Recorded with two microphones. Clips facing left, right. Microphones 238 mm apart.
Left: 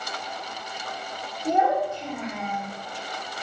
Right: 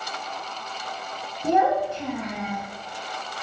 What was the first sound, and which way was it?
A child speaking, 75° right (ahead or behind).